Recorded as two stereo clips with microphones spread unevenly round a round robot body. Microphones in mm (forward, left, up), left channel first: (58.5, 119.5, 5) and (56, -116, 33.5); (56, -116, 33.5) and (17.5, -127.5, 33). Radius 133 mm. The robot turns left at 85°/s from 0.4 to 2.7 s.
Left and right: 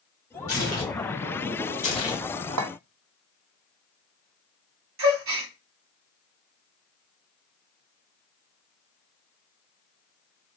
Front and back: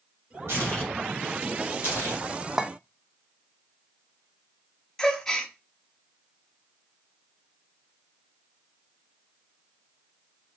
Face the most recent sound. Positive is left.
turn(degrees=-60)